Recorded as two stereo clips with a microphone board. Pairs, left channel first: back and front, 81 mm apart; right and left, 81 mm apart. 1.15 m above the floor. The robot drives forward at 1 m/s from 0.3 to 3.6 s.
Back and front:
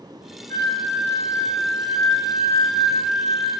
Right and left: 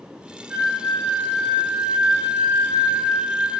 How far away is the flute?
About 2.5 m.